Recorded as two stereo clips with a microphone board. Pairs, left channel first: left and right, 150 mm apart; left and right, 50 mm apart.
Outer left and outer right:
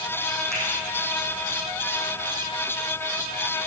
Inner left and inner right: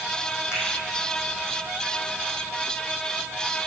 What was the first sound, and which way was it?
A finger snap, 20° right (ahead or behind).